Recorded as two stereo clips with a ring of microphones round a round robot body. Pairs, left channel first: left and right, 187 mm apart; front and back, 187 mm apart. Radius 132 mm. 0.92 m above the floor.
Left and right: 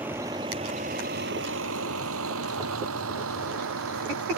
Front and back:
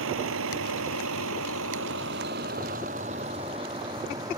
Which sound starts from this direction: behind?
A vehicle, at 0.0 s.